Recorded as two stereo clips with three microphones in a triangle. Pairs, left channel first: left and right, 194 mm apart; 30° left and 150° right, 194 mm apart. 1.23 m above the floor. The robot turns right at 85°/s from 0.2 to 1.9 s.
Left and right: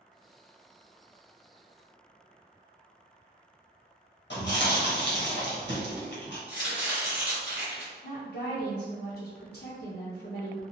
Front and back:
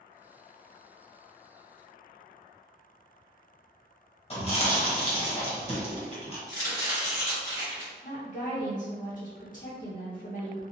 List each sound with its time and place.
4.3 s chewing: 85° left, 1.0 m
6.5 s chopping: 145° left, 1.6 m
8.0 s a woman speaking: 70° left, 0.6 m